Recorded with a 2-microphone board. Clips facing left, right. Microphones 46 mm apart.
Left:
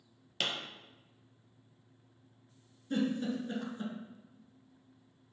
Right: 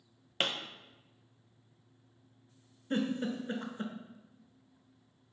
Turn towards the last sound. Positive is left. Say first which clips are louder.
# even
turn(degrees=-35)  # may be behind; listen again after turning